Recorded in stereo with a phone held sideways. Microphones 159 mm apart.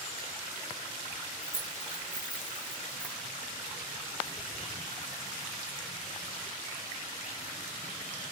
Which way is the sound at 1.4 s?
60° right (ahead or behind).